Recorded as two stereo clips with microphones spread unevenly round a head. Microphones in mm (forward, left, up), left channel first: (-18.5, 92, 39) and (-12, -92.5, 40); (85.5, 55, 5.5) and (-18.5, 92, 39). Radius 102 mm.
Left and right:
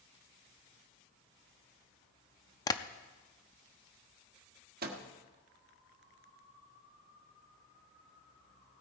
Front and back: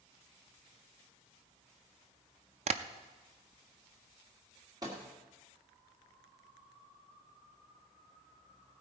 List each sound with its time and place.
2.7 s tapping: 165° left, 0.5 m
4.8 s a microwave: 125° right, 1.3 m